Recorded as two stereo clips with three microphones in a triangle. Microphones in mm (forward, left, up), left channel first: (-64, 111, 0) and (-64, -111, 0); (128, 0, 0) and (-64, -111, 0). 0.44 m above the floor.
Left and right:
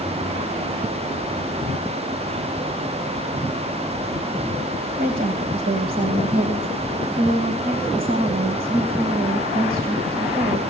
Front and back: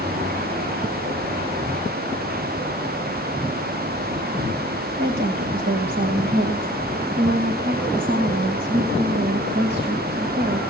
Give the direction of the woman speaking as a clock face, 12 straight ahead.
4 o'clock.